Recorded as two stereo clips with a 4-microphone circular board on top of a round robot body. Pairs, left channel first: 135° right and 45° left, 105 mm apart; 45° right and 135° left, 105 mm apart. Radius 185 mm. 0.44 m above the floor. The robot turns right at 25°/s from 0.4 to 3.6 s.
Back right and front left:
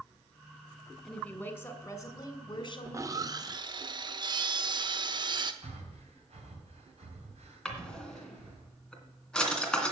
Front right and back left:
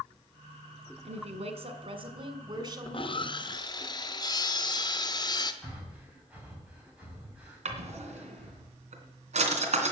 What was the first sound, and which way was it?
A woman speaking, 140° left.